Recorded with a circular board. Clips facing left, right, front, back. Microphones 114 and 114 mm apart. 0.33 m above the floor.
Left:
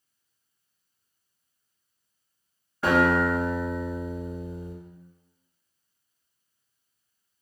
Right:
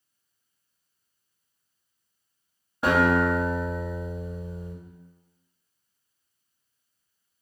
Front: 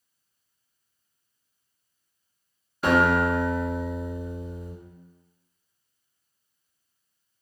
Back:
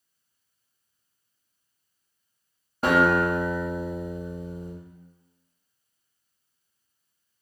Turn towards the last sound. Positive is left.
turn(degrees=-155)